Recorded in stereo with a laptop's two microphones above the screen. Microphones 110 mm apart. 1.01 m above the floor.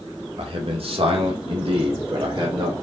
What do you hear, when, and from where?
0.4 s a man speaking: 60° right (ahead or behind), 1.3 m; by 2.7 s 45° right (ahead or behind), 2 m